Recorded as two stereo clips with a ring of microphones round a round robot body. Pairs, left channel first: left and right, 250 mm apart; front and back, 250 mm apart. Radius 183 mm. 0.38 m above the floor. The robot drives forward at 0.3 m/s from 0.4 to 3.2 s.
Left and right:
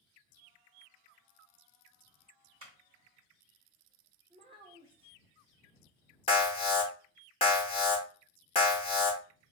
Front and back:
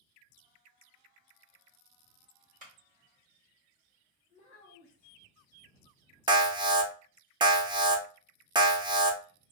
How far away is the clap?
About 1.3 m.